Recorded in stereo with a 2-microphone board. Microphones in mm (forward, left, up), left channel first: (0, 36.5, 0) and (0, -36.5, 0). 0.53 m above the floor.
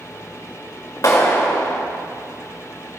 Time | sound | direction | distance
1.0 | a clap | 55° left (ahead or behind) | 1.8 m